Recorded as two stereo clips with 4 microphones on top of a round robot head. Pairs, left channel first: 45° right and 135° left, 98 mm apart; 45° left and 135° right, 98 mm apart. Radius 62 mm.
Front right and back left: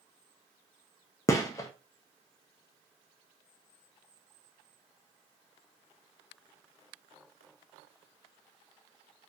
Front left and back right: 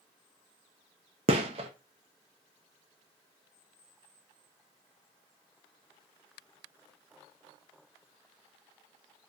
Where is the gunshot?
105° right, 1.4 m.